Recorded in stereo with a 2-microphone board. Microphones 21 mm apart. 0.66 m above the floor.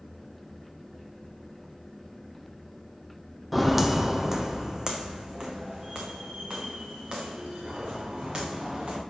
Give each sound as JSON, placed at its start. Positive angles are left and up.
{"t": 3.5, "sound": "footsteps", "side_deg": -5, "distance_m": 0.9}